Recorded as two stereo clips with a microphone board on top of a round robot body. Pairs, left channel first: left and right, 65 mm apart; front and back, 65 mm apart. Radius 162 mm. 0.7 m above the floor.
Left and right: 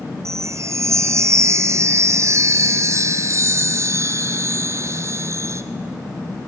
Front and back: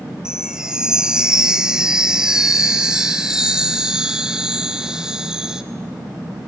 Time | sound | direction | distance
0.2 | a chime | 105° right | 0.7 m